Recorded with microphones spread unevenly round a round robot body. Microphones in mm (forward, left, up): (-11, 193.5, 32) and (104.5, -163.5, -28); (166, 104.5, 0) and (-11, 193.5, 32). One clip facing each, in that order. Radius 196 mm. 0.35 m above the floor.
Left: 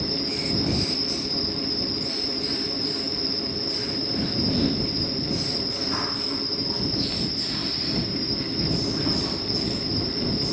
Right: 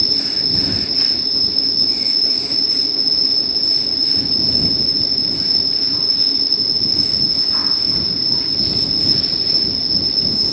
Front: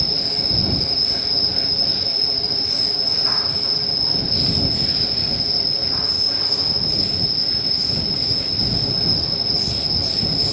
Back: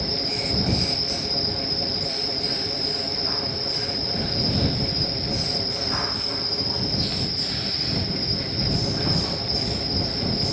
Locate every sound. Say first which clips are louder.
0.0 s an insect: even, back 1 dB; 40° right